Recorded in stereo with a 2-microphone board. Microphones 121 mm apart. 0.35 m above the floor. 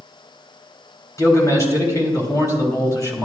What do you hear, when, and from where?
1.2 s a man speaking: 25° left (ahead or behind), 1.8 m